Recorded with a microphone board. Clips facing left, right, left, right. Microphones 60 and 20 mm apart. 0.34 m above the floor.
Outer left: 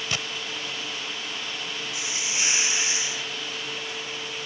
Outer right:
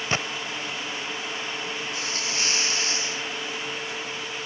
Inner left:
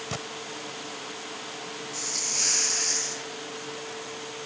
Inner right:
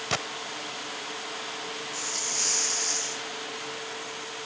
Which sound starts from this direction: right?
A gunshot, at 0.1 s.